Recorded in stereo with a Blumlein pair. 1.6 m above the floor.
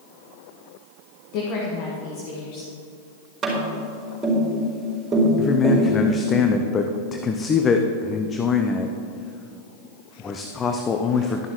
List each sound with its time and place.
1.3 s a woman speaking: 45° left, 1.6 m
3.4 s tapping: 20° right, 4 m
5.4 s a man speaking: 20° left, 0.6 m